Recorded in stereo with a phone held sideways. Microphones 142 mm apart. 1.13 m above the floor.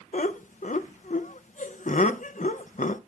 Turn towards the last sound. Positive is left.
turn(degrees=65)  # may be behind; listen again after turning